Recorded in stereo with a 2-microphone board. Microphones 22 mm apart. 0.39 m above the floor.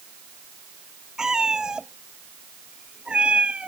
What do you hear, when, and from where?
1.2 s a cat meowing: 30° right (ahead or behind); by 3.7 s 75° right (ahead or behind)